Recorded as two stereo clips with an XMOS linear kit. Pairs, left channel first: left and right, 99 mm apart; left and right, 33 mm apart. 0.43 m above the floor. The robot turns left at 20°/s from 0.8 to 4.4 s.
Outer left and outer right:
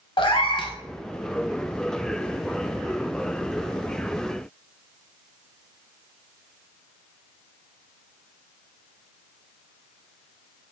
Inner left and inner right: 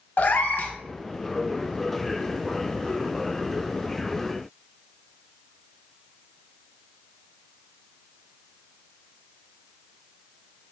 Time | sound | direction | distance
0.2 | a cat meowing | 60° left (ahead or behind) | 0.6 m